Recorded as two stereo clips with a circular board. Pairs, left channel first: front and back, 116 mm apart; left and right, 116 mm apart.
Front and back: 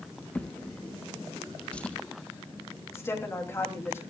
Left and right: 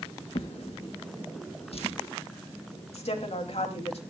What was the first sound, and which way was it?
A drawer, 80° left.